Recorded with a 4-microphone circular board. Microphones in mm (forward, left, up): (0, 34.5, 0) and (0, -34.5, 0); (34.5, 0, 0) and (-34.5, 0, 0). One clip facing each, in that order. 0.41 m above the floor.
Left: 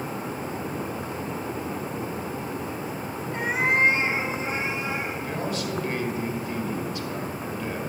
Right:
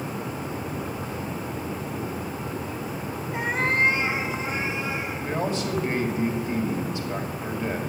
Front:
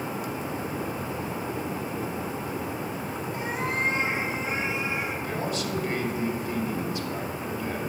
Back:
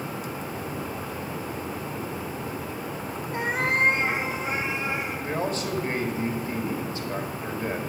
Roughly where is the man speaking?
Behind right.